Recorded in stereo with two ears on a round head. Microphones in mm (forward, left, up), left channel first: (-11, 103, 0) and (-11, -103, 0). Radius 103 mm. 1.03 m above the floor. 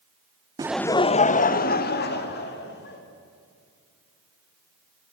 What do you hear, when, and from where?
0.6 s laughter: 20° right (ahead or behind), 0.5 m; by 3.0 s 50° left (ahead or behind), 3 m